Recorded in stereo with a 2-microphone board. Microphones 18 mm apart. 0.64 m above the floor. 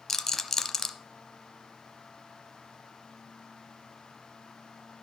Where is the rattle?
20° left (ahead or behind), 0.8 m.